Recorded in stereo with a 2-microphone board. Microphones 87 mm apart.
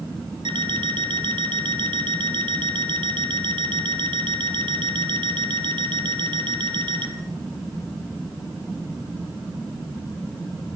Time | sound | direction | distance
0.5 | an alarm clock | 65° right (ahead or behind) | 1.6 m